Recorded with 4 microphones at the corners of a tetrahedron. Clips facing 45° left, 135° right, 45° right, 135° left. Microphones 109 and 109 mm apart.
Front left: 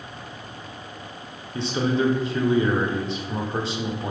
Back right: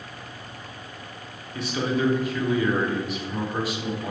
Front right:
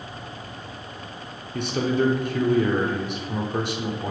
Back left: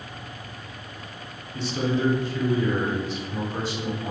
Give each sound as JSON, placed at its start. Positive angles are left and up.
{"t": 1.5, "sound": "a man speaking", "azimuth_deg": -15, "distance_m": 0.5}